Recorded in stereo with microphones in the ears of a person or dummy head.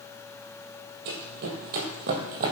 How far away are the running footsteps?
About 1.9 m.